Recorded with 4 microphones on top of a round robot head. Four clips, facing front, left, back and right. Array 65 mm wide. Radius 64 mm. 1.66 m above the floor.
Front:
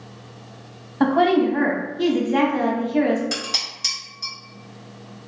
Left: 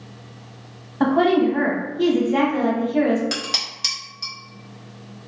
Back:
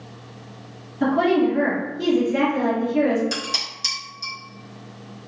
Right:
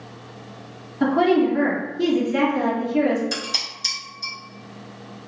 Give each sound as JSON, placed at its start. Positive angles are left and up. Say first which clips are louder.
{"t": 1.0, "sound": "a woman speaking", "louder": "left 1 dB, front 1 dB", "azimuth_deg": 35, "distance_m": 1.2}
{"t": 3.3, "sound": "dishes clattering", "louder": "left 1 dB, even", "azimuth_deg": 80, "distance_m": 1.4}